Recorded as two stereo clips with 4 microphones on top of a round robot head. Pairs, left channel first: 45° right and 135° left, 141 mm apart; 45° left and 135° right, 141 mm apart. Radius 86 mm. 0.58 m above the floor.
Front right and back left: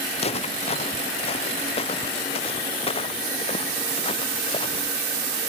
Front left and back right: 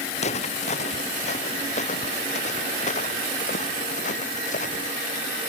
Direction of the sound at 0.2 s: Straight ahead.